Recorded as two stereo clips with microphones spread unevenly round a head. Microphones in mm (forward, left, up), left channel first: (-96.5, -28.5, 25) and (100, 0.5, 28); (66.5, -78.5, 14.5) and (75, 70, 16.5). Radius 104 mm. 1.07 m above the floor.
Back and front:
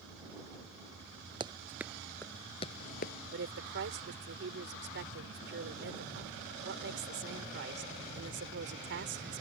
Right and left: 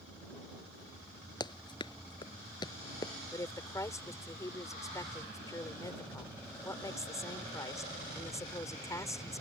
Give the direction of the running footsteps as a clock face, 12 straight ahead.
2 o'clock.